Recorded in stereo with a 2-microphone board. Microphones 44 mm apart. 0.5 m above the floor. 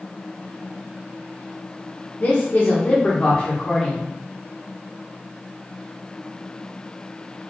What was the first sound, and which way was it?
A man speaking, 40° left (ahead or behind).